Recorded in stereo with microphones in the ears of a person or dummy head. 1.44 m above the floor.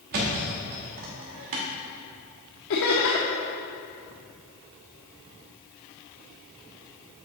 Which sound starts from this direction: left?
Laughter, at 2.7 s.